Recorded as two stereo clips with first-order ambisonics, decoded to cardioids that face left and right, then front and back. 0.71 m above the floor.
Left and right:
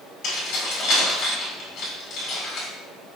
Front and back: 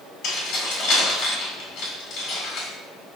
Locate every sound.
0.2 s keys jangling: 50° left, 1.7 m